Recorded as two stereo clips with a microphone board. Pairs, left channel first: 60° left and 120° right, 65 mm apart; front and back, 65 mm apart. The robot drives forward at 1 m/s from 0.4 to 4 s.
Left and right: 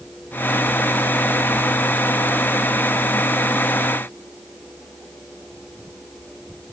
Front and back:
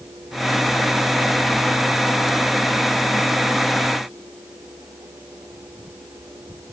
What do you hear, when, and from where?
Only background noise.